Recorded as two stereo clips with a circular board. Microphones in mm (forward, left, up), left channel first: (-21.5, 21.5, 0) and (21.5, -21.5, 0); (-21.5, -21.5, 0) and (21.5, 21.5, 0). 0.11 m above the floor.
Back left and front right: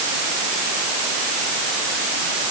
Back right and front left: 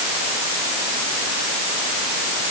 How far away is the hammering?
No hammering in this recording.